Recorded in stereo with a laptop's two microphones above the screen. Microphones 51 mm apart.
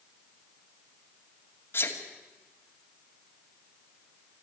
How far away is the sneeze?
About 2.5 m.